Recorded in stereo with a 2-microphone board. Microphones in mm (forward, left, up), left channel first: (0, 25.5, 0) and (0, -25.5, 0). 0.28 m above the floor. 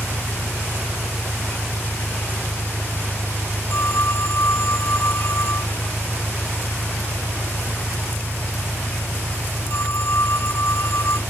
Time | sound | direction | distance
0.0 | an engine running | 75° right (ahead or behind) | ?
3.7 | a phone ringing | 55° left (ahead or behind) | ?